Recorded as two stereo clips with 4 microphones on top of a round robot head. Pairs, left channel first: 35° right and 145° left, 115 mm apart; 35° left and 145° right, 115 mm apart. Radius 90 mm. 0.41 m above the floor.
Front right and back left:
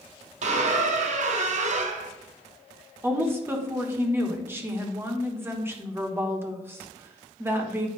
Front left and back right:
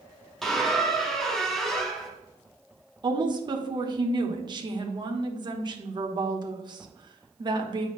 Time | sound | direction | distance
0.4 | a squeak | 125° left | 1.1 m
3.0 | a woman speaking | 155° right | 1.3 m